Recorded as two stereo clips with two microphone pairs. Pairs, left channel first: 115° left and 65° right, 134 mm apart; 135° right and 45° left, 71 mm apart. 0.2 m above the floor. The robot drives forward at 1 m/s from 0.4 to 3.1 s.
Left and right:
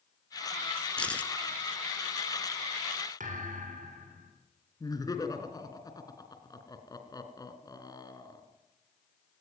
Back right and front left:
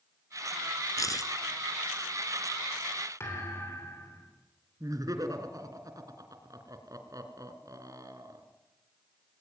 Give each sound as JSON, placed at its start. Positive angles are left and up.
{"t": 1.0, "sound": "keys jangling", "azimuth_deg": -160, "distance_m": 1.6}
{"t": 3.2, "sound": "a thud", "azimuth_deg": -80, "distance_m": 7.0}
{"t": 4.8, "sound": "laughter", "azimuth_deg": 60, "distance_m": 3.0}